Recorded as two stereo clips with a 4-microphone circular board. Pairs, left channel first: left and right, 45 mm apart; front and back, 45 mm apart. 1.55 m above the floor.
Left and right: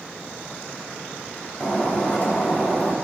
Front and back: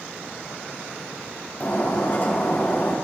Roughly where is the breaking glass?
Ahead left.